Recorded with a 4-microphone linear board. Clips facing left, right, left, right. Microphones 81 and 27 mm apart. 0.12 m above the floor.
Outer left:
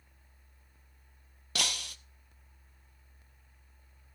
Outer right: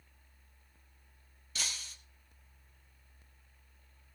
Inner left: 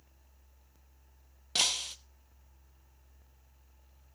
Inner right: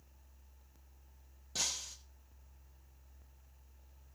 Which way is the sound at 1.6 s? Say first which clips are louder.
Outer left 7 dB, inner left 9 dB; 75° left (ahead or behind).